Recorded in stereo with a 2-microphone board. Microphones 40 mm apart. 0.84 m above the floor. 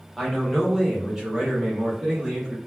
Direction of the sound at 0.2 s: Centre (ahead or behind).